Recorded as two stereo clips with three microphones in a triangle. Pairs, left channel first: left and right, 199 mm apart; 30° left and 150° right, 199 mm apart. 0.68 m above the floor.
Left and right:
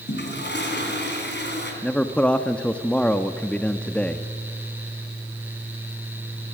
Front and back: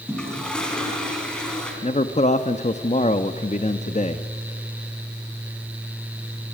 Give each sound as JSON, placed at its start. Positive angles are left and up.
{"t": 0.1, "sound": "a toilet flushing", "azimuth_deg": 115, "distance_m": 3.5}
{"t": 1.8, "sound": "a man speaking", "azimuth_deg": 10, "distance_m": 0.7}